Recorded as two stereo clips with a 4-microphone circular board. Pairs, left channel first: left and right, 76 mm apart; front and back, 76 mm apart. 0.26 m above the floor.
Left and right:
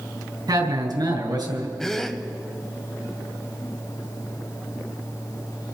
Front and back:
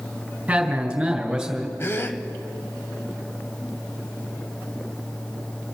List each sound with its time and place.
0.5 s a man speaking: 110° right, 2.5 m; by 1.7 s 95° right, 3.5 m
1.8 s a gasp: 10° left, 0.8 m